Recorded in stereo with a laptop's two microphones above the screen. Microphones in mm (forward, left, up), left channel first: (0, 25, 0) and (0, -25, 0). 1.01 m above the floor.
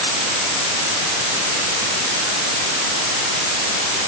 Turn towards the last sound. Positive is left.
No sound to turn to.